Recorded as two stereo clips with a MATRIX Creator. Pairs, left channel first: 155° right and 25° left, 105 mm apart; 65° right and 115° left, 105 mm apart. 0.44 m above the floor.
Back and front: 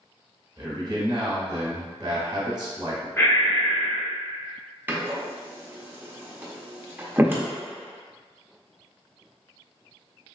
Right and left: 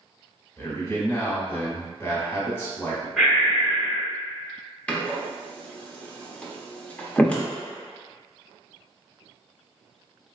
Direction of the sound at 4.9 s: 10° right.